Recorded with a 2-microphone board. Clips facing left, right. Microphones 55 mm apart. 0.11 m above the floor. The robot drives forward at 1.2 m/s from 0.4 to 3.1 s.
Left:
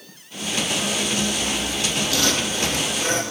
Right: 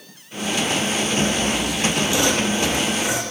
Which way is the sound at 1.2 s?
45° right (ahead or behind).